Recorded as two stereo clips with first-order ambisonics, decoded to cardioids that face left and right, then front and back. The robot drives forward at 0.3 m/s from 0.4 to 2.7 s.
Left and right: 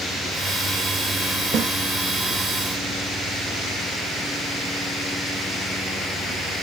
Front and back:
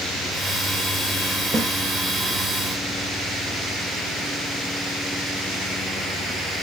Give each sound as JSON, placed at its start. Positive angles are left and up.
{"t": 1.5, "sound": "a snare drum", "azimuth_deg": -125, "distance_m": 0.5}